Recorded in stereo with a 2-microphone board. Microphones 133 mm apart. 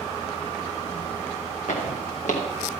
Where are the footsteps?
85° left, 3.5 m.